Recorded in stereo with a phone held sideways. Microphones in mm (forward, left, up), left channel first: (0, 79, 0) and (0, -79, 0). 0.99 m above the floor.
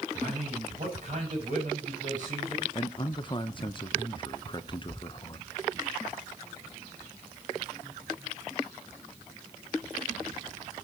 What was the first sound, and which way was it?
A man speaking, 55° right (ahead or behind).